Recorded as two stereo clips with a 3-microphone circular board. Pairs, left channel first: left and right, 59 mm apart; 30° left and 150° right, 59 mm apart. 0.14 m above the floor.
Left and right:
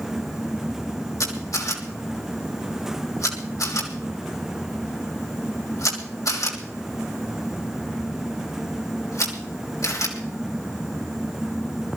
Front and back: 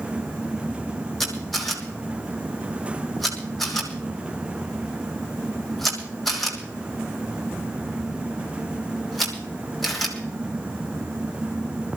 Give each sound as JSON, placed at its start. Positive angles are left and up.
{"t": 1.2, "sound": "a camera shutter", "azimuth_deg": 120, "distance_m": 3.0}